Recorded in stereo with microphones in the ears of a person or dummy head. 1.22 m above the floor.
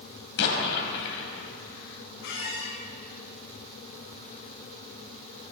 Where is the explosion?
65° left (ahead or behind), 4.5 m.